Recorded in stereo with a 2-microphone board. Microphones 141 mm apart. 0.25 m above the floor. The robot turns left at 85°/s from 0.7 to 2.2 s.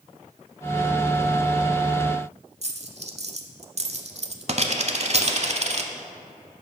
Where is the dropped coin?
50° right (ahead or behind), 0.5 m.